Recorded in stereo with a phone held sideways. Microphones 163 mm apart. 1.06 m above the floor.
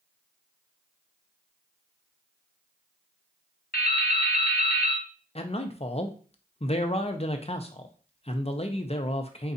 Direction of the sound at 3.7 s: 70° left (ahead or behind).